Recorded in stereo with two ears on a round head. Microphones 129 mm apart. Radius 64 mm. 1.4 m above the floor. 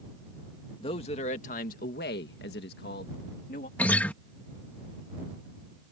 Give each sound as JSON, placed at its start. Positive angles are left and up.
{"t": 0.8, "sound": "a man speaking", "side_deg": 40}
{"t": 3.8, "sound": "a guitar", "side_deg": 10}